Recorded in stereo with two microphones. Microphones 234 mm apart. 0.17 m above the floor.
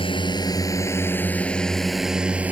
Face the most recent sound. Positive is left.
turn(degrees=-5)  # may be behind; listen again after turning